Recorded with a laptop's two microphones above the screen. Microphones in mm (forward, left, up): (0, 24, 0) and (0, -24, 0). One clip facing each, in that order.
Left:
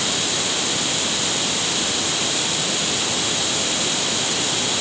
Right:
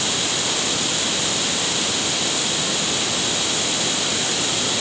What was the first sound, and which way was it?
Only background noise.